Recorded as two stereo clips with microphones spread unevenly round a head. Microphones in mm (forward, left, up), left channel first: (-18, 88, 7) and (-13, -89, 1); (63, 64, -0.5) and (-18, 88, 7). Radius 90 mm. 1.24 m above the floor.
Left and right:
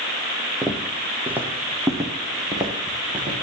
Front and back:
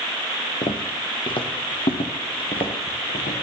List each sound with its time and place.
0.6 s footsteps: straight ahead, 2.5 m; by 3.4 s 20° right, 4 m